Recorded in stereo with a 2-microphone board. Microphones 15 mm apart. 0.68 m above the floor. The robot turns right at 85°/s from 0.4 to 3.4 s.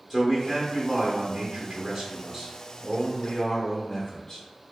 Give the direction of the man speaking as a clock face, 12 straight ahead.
6 o'clock.